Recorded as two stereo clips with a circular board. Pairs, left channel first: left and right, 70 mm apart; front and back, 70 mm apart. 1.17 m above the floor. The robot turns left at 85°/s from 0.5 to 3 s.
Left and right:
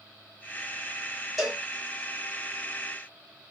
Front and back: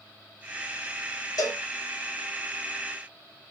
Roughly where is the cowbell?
Ahead.